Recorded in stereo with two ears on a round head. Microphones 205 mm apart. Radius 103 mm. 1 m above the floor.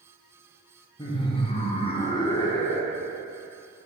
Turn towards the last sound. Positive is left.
turn(degrees=10)  # may be behind; listen again after turning